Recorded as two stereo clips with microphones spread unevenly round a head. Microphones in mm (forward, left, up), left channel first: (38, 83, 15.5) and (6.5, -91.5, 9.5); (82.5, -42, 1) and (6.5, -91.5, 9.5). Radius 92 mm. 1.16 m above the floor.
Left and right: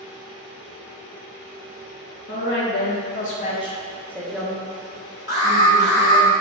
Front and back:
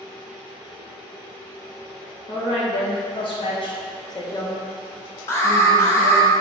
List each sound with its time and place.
2.3 s a woman speaking: 60° left, 1.2 m; by 6.3 s 50° right, 1.6 m
5.3 s an alarm: 30° right, 1.4 m